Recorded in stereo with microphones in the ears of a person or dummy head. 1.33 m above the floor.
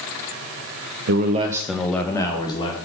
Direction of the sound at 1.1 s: 65° right (ahead or behind).